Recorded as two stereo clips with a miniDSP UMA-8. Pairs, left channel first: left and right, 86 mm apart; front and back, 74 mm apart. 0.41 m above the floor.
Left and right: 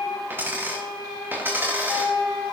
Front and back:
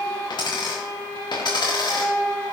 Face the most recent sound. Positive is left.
turn(degrees=-25)